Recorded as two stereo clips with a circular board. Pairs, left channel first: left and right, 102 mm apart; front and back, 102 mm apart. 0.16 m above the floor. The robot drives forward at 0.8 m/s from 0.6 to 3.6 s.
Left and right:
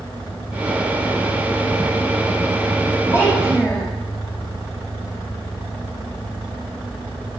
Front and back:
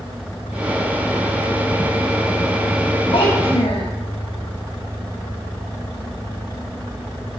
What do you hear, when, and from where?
3.1 s a child speaking: 25° left, 3 m; by 3.9 s 30° left, 3 m